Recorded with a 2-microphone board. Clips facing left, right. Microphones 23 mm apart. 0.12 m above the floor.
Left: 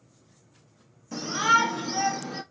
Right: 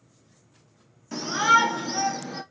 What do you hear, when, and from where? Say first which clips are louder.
1.1 s a shout: right 2 dB; 25° right (ahead or behind), 1.4 m; by 2.4 s 10° right (ahead or behind), 1.6 m